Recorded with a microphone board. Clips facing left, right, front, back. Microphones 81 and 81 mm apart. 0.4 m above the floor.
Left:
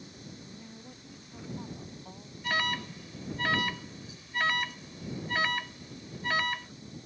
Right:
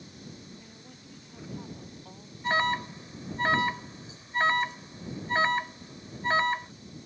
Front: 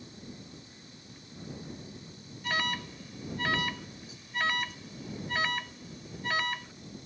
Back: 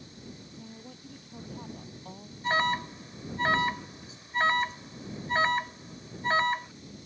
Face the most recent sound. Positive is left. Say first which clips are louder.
# right 5 dB, back 6 dB
turn(degrees=-135)